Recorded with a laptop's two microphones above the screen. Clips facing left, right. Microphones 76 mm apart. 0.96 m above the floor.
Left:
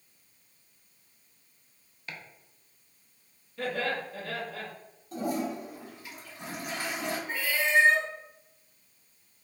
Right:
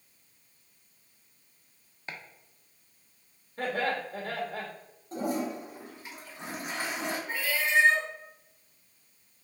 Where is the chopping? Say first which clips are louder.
Right 1 dB; 30° right (ahead or behind), 0.7 m.